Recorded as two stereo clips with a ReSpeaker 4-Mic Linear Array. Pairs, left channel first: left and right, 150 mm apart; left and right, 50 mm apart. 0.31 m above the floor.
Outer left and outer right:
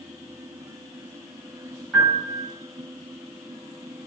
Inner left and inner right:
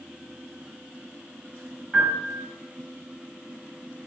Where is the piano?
Centre (ahead or behind), 1.6 m.